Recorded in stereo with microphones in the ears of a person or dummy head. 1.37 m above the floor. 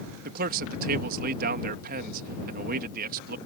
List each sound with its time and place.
0.2 s a man speaking: 50° right (ahead or behind)